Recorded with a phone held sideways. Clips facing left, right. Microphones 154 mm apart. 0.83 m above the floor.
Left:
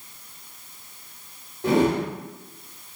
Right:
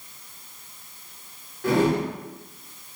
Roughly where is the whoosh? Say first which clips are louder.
Left 1 dB; left.